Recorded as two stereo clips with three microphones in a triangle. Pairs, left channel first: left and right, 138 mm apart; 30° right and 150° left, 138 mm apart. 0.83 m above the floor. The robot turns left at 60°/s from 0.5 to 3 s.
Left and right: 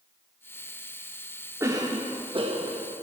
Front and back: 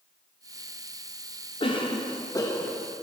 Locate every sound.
1.6 s a cough: 30° right, 0.6 m; by 2.9 s 110° right, 0.6 m